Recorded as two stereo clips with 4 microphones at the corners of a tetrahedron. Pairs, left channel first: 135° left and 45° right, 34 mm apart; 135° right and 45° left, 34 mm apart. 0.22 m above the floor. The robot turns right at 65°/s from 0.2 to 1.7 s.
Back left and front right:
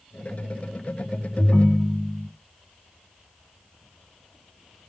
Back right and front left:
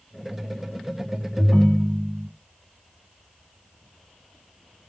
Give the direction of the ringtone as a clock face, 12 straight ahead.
7 o'clock.